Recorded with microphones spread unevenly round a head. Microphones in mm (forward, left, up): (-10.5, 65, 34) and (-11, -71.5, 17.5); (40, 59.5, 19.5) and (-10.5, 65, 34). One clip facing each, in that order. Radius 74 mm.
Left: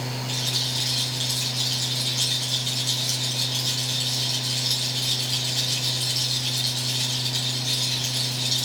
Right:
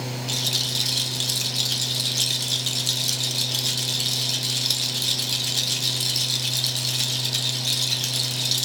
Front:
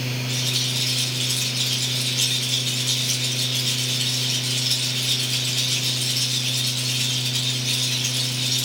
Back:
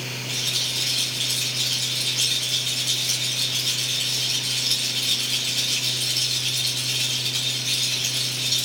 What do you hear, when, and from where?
0.3 s a rattle: 110° right, 0.8 m